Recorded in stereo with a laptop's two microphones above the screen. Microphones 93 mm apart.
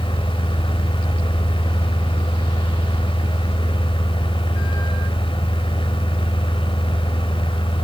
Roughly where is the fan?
Left.